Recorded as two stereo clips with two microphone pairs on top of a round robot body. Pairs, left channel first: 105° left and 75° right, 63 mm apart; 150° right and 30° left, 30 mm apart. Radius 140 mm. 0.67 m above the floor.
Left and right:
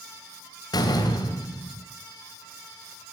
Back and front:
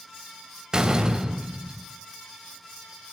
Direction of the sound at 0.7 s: 95° left.